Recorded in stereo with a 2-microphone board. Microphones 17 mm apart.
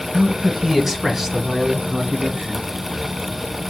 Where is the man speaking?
10° right (ahead or behind), 1.6 m; by 2.6 s 50° right (ahead or behind), 2 m.